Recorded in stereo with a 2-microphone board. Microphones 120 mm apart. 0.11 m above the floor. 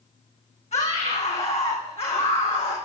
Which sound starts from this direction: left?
A scream, at 0.7 s.